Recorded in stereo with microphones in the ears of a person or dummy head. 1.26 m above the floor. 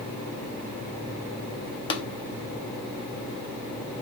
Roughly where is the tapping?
Left.